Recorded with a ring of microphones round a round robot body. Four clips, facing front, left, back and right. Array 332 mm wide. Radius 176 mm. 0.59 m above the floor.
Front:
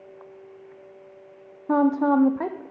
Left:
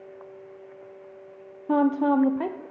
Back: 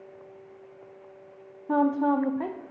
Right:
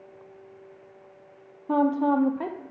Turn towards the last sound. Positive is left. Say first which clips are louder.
# left 1 dB, front 3 dB
turn(degrees=25)